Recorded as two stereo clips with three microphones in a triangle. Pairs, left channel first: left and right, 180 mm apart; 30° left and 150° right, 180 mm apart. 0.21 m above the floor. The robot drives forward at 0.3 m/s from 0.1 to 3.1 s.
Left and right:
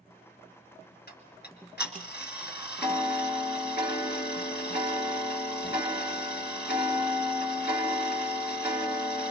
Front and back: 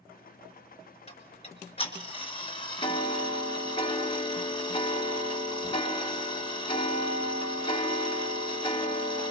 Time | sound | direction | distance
1.1 | ticking | 80° left | 3 m